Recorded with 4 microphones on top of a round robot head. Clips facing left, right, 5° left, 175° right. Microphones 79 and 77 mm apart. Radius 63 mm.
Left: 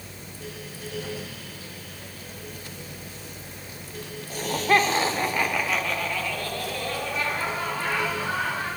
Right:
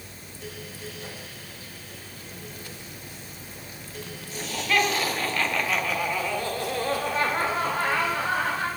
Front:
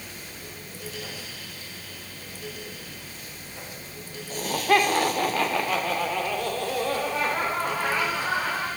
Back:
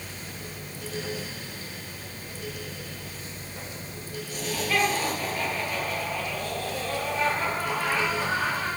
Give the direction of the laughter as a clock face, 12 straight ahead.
10 o'clock.